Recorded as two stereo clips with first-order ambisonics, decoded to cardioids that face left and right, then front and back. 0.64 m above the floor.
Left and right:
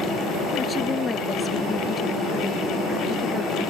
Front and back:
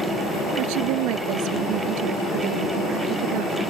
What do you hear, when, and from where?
0.6 s a woman speaking: 165° left; by 3.6 s 175° left